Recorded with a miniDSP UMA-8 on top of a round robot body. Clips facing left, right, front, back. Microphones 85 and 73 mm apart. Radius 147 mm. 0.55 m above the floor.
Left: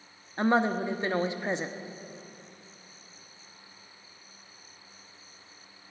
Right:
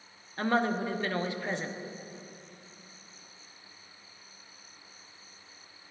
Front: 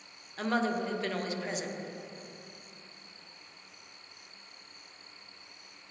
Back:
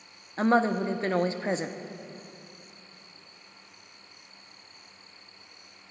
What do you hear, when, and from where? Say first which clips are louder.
0.4 s a woman speaking: left 3 dB, back 7 dB; 150° left, 1.1 m